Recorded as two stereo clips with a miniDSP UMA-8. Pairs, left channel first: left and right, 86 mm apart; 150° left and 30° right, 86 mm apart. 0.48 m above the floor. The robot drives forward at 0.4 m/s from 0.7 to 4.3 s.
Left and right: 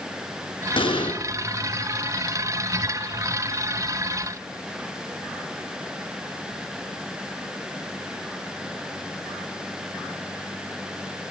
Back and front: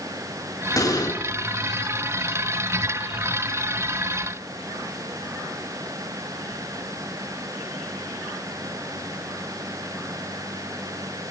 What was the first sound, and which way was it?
An explosion, 100° left.